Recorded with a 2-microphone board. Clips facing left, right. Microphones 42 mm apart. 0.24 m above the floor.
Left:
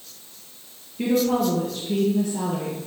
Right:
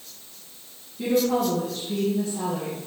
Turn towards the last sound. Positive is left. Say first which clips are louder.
# left 1 dB
turn(degrees=75)  # may be behind; listen again after turning